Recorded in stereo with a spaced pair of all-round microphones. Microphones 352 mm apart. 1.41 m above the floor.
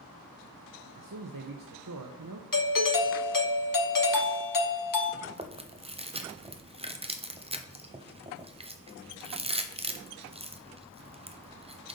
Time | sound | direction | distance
0.9 | a man speaking | 65° right (ahead or behind) | 0.7 m
2.5 | a doorbell | 65° left (ahead or behind) | 0.8 m
5.2 | chewing | 15° right (ahead or behind) | 0.6 m